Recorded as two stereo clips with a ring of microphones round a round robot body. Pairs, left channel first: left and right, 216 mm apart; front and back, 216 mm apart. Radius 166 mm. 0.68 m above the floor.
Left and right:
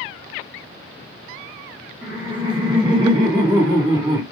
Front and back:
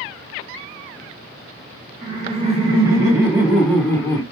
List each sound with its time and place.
2.0 s laughter: 150° right, 1.6 m; by 4.2 s 40° right, 1.2 m